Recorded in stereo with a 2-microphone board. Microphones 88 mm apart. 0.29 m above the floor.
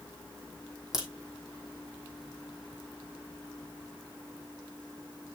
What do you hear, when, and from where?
0.9 s a crack: 5° right (ahead or behind), 3 m